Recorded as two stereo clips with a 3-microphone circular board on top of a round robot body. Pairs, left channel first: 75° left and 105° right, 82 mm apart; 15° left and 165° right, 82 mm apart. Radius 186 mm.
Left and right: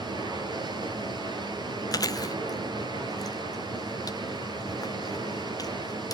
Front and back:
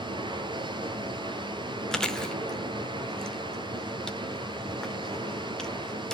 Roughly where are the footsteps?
No footsteps in this recording.